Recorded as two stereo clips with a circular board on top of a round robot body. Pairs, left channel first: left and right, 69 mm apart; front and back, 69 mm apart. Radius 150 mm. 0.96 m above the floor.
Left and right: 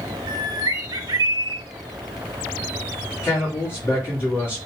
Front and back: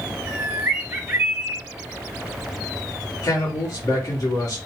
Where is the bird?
120° right, 0.8 m.